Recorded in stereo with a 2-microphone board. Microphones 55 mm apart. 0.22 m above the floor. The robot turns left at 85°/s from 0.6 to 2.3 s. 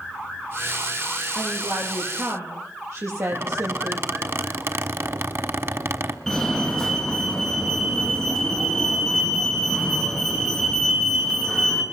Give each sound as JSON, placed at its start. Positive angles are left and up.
{"t": 1.4, "sound": "a woman speaking", "azimuth_deg": -45, "distance_m": 8.5}
{"t": 3.3, "sound": "a squeak", "side_deg": -45, "distance_m": 1.4}
{"t": 6.3, "sound": "a fire alarm", "side_deg": 5, "distance_m": 4.5}